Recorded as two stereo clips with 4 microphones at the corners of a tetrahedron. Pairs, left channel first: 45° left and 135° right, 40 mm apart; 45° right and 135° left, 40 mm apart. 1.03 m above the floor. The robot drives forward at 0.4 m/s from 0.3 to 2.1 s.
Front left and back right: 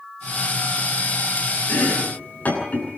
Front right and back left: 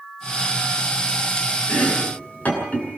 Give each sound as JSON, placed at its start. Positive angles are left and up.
{"t": 1.7, "sound": "chopping", "azimuth_deg": 0, "distance_m": 10.0}